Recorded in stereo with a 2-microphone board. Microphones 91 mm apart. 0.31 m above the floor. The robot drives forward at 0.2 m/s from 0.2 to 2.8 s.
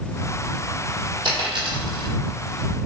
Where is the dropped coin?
65° right (ahead or behind), 1.7 m; by 2.1 s 60° right (ahead or behind), 1.8 m.